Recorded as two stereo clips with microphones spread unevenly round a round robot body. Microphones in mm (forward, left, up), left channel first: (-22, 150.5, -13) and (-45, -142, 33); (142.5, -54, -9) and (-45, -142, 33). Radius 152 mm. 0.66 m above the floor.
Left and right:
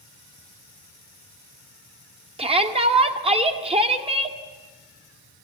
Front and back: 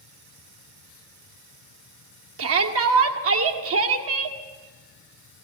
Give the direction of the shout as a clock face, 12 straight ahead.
6 o'clock.